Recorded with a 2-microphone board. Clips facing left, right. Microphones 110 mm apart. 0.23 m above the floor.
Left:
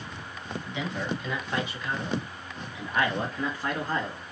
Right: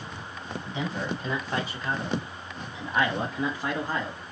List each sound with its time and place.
0.7 s a man speaking: 40° right (ahead or behind), 1.5 m; by 4.2 s 10° right (ahead or behind), 1.4 m